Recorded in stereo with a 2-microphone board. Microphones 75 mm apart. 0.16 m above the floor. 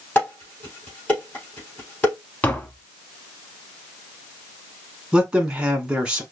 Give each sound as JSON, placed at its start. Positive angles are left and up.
{"t": 0.1, "sound": "dishes clattering", "side_deg": 20, "distance_m": 4.0}
{"t": 2.4, "sound": "tapping", "side_deg": 20, "distance_m": 1.1}
{"t": 5.1, "sound": "a man speaking", "side_deg": -15, "distance_m": 1.2}